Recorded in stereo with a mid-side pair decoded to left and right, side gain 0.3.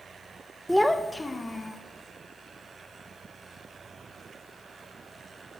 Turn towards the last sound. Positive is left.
turn(degrees=45)